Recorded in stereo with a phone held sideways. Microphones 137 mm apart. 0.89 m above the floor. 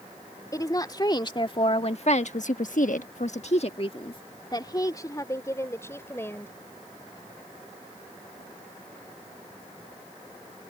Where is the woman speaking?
25° left (ahead or behind); by 6.5 s 15° left (ahead or behind).